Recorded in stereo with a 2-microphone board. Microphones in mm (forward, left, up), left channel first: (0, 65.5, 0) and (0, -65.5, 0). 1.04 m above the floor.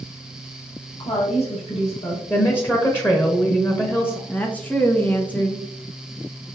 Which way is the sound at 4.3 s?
10° left (ahead or behind).